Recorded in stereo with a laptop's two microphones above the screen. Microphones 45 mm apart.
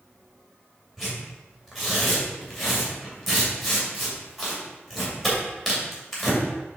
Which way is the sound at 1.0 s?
5° right (ahead or behind).